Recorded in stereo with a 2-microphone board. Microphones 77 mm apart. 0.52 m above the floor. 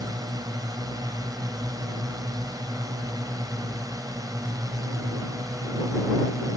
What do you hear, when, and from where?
0.0 s a drone: 55° right (ahead or behind); by 6.6 s 50° right (ahead or behind)